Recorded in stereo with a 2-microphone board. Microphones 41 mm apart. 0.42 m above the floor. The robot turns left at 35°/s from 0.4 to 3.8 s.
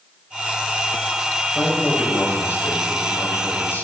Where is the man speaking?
145° left, 1.8 m; by 3.9 s 65° left, 1.8 m.